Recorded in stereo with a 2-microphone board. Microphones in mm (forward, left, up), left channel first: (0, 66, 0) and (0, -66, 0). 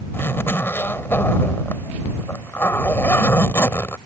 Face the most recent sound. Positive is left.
turn(degrees=15)  # may be behind; listen again after turning